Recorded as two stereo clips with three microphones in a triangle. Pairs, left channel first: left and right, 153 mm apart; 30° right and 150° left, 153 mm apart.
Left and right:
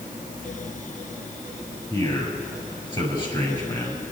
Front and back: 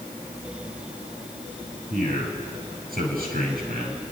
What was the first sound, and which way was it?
A man speaking, 150° left.